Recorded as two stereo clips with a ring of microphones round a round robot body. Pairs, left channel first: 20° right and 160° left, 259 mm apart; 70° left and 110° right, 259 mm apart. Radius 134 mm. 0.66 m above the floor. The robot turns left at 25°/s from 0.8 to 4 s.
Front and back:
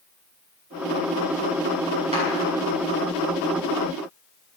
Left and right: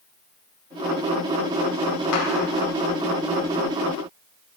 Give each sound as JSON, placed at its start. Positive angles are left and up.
{"t": 2.1, "sound": "a clap", "azimuth_deg": 90, "distance_m": 3.5}